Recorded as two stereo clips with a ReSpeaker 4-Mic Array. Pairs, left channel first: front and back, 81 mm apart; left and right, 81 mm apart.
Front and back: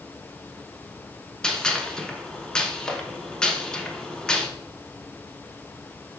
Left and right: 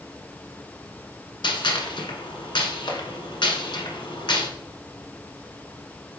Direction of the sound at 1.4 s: 80° left.